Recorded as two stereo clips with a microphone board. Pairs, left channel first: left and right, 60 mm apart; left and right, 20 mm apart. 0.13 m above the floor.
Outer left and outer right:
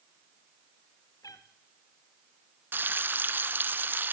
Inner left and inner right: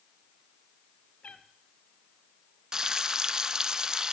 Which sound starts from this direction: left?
A cat meowing, at 1.2 s.